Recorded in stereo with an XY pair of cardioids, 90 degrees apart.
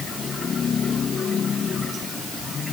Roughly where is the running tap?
I don't hear a running tap.